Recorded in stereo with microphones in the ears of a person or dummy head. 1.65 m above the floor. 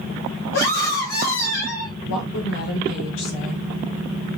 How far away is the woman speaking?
About 2 m.